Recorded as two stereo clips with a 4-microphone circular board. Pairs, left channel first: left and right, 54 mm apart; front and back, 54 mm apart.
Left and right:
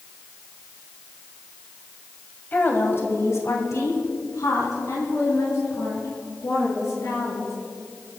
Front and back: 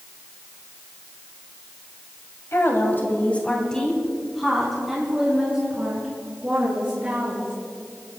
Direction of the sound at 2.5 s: 35° left.